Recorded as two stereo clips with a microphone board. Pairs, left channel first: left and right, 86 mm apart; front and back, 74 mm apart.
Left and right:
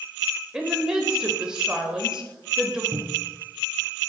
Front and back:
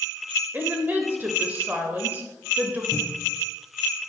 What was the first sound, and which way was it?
A woman speaking, 160° right.